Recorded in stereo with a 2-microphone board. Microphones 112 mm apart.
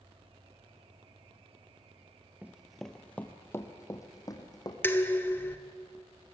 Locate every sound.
2.4 s running footsteps: 15° right (ahead or behind), 1.0 m; by 4.7 s 35° left (ahead or behind), 2.5 m
4.8 s dishes clattering: 20° left (ahead or behind), 1.4 m